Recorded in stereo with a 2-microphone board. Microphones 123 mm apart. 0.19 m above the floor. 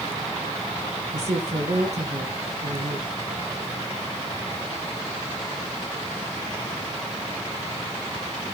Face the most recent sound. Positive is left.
turn(degrees=-60)  # may be behind; listen again after turning